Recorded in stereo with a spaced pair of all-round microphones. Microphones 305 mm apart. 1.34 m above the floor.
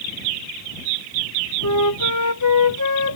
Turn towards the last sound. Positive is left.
turn(degrees=75)  # may be behind; listen again after turning